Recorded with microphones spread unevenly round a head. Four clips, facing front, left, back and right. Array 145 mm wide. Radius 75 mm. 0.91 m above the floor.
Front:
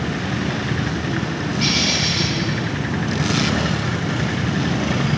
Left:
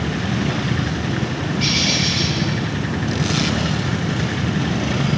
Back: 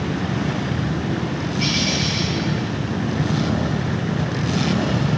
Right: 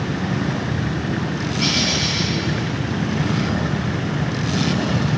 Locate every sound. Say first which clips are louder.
1.6 s a bird: right 1 dB, even; 115° left, 2 m